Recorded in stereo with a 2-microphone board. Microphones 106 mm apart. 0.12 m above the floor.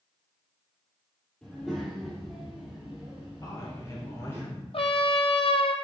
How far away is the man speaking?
About 2 m.